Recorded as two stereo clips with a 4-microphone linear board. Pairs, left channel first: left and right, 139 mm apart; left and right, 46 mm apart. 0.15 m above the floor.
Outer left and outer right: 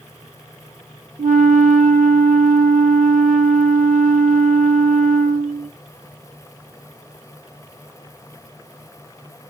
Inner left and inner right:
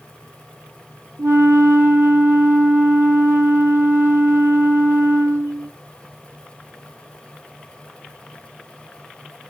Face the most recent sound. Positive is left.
turn(degrees=-70)  # may be behind; listen again after turning